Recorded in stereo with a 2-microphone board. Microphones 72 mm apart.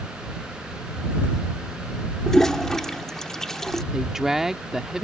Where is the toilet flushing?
5° left (ahead or behind).